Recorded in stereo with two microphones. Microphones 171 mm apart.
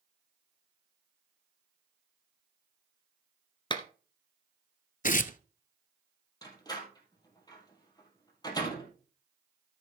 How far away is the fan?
I don't hear a fan.